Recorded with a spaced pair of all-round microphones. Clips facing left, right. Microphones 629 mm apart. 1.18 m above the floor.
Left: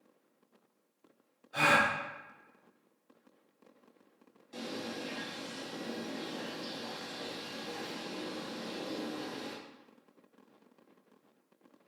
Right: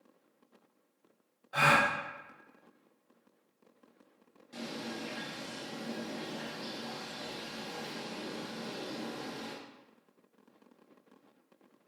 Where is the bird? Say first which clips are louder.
Left 1 dB; 45° right (ahead or behind), 1.3 m.